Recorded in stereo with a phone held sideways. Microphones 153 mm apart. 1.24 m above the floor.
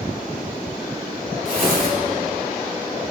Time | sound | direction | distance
1.4 | tearing paper | 65° right (ahead or behind) | 1.8 m